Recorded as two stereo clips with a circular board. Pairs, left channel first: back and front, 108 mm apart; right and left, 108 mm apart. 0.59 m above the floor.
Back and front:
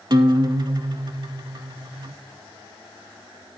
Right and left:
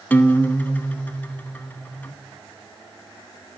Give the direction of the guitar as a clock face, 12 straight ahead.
1 o'clock.